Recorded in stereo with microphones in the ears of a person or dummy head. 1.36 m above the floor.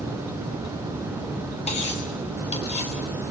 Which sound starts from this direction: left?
Cutlery clinking, at 1.7 s.